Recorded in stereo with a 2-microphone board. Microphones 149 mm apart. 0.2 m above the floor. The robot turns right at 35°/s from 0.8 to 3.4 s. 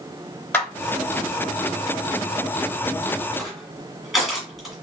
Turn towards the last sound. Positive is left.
turn(degrees=0)  # may be behind; listen again after turning